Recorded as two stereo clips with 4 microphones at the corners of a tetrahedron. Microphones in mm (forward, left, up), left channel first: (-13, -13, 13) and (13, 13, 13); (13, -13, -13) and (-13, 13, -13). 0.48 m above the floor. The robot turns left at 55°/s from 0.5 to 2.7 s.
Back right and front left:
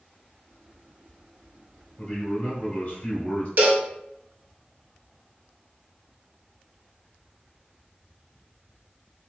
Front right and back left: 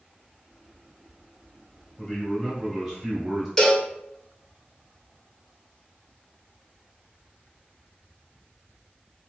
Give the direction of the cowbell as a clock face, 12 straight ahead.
11 o'clock.